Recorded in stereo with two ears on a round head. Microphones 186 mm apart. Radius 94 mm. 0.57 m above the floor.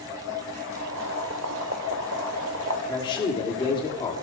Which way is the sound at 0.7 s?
60° right (ahead or behind).